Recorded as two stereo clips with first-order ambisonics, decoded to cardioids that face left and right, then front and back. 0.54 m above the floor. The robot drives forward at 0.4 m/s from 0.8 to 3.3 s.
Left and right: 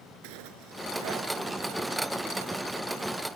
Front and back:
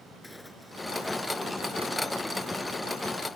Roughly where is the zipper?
Right.